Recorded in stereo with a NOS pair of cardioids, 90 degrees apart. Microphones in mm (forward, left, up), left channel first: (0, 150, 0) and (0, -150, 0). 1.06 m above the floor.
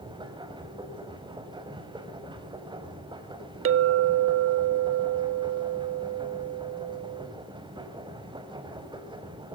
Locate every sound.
0.0 s a machine running: 15° right, 5 m
3.6 s a clink: 45° right, 1.1 m